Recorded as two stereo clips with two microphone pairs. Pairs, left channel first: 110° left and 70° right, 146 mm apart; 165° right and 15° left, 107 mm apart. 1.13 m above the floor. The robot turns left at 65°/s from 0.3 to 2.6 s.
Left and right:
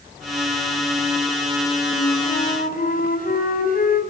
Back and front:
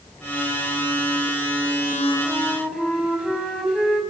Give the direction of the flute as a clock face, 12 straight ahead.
7 o'clock.